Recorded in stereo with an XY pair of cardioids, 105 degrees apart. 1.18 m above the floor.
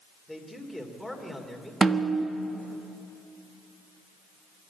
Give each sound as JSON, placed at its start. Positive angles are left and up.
{"t": 0.3, "sound": "a man speaking", "azimuth_deg": 5, "distance_m": 3.0}
{"t": 1.8, "sound": "a snare drum", "azimuth_deg": -35, "distance_m": 1.3}